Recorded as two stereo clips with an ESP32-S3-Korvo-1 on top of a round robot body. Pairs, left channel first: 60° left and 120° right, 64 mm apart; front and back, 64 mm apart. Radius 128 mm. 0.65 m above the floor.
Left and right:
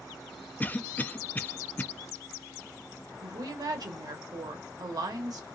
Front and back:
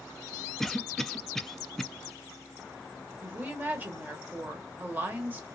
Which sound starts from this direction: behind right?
A woman speaking, at 3.2 s.